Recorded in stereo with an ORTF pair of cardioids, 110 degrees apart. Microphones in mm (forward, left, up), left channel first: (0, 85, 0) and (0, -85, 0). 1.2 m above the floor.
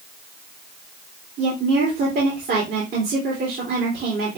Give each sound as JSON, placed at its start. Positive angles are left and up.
{"t": 1.4, "sound": "a woman speaking", "azimuth_deg": -65, "distance_m": 3.0}